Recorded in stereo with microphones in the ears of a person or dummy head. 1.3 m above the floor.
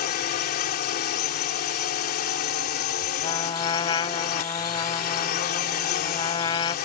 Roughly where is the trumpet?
Left.